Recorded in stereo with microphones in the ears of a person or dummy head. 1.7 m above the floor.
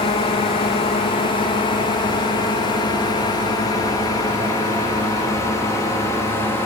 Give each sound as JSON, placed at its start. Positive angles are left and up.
{"t": 0.0, "sound": "a drone", "side_deg": 25}